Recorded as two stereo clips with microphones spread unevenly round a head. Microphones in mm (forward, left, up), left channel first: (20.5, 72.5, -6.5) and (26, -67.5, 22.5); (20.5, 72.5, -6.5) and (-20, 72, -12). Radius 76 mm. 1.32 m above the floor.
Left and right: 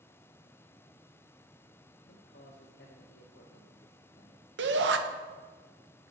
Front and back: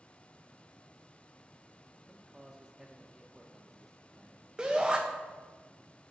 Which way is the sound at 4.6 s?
100° right.